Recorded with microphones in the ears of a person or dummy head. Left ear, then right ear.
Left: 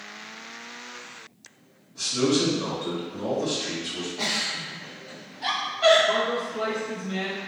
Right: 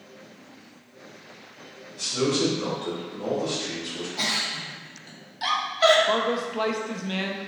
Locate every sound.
1.9 s a man speaking: 15° left (ahead or behind), 1.2 m
4.2 s a giggle: 65° right (ahead or behind), 0.9 m
6.1 s a man speaking: 40° right (ahead or behind), 0.5 m